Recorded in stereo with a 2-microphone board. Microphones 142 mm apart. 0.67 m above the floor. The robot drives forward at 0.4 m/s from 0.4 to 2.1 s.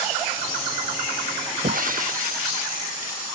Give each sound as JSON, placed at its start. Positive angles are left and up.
{"t": 1.6, "sound": "breaking glass", "side_deg": -70}